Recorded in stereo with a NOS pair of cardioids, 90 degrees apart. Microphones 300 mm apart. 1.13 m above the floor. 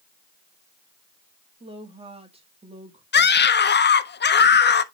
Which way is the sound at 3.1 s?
35° left.